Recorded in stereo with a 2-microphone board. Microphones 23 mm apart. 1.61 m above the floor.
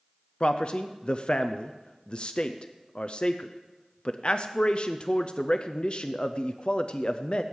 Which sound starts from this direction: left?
A man speaking, at 0.4 s.